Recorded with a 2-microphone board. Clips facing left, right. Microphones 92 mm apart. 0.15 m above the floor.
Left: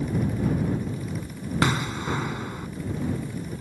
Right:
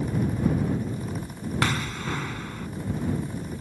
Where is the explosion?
15° left (ahead or behind).